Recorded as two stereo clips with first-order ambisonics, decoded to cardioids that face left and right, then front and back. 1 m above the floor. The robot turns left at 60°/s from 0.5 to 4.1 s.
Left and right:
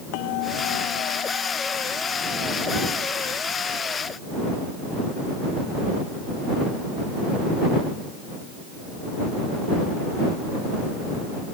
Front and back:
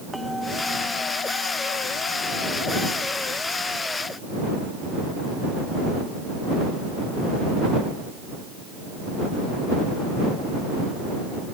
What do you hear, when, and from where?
0.1 s a bell: 90° left; by 4.6 s 125° right